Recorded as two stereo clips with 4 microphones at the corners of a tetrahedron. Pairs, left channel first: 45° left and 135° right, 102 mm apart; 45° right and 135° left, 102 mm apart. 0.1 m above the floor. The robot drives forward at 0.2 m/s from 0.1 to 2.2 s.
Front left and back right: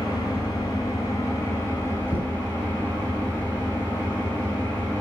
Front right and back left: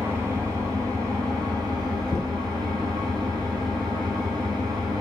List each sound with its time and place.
0.0 s an engine running: 80° left, 0.9 m; by 5.0 s 115° left, 0.9 m
2.1 s knocking: 80° right, 0.9 m; by 2.4 s 85° right, 0.9 m